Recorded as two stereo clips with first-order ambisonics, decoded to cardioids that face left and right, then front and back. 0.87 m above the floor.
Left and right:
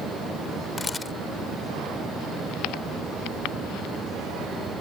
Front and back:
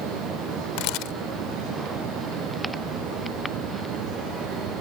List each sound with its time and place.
0.8 s a camera shutter: 15° left